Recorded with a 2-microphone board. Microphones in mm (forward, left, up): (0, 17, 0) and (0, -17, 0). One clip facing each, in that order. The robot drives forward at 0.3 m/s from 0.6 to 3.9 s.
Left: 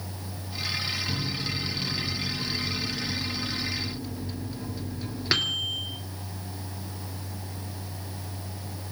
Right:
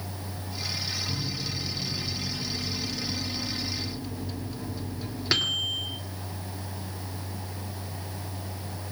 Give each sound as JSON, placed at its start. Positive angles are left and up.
{"t": 1.1, "sound": "a microwave", "side_deg": 10, "distance_m": 0.9}